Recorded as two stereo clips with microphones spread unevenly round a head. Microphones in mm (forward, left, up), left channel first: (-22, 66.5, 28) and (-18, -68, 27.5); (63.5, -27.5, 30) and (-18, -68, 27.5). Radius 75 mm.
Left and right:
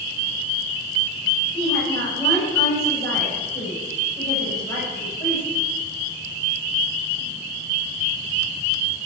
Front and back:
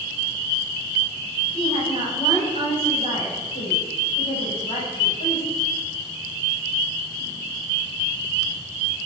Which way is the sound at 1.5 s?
25° left.